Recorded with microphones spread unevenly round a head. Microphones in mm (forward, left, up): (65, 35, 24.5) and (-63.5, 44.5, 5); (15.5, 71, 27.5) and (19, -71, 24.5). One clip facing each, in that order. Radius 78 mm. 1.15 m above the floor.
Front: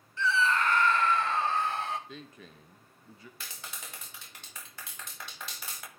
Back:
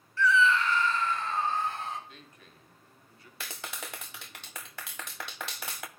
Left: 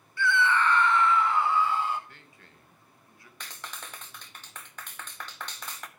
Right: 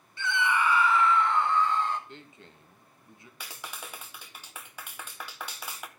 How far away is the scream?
About 0.7 m.